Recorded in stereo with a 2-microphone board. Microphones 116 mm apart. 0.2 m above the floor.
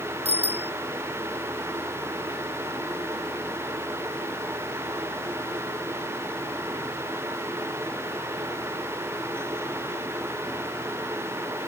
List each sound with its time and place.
0.2 s a bicycle bell: 65° right (ahead or behind)